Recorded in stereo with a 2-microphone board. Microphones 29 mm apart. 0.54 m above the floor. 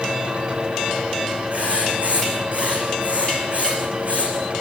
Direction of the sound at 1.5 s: 65° right (ahead or behind).